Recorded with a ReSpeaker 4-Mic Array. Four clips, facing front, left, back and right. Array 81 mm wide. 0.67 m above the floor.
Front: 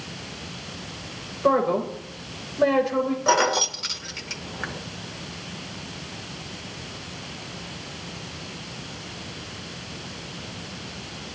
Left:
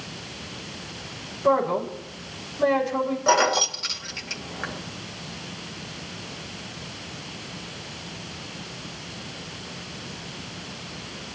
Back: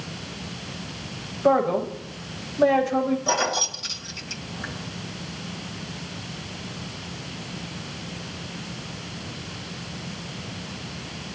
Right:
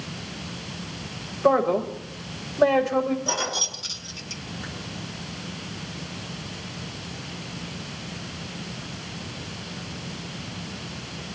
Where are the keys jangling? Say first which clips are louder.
Left 9 dB, front 4 dB; 35° left, 1.1 m.